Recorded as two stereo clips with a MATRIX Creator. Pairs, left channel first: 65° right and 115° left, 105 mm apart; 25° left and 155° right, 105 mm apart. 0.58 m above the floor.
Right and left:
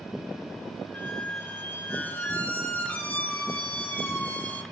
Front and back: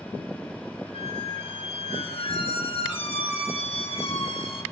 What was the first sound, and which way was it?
A squeak, 5° left.